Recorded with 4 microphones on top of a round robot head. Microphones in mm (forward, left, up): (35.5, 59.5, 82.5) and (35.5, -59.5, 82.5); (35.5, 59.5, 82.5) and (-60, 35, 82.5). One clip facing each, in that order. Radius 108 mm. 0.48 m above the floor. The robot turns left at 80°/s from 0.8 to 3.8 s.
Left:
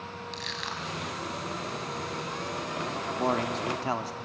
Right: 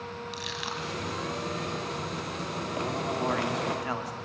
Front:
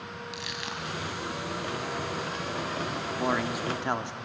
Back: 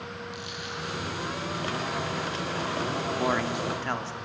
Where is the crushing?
10° right, 2 m; by 1.2 s 40° right, 2 m.